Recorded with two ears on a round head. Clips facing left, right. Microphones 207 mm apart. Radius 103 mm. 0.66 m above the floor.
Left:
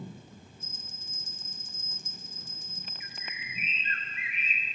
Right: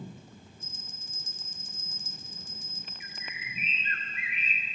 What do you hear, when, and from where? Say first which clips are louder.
0.6 s a bell: even; 55° right (ahead or behind), 1.0 m
3.0 s a bird: even; 50° right (ahead or behind), 1.5 m